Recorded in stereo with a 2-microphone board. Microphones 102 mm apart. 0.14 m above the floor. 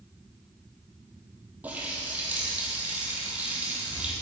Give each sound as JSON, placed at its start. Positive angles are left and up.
{"t": 1.6, "sound": "a running tap", "side_deg": -15, "distance_m": 2.5}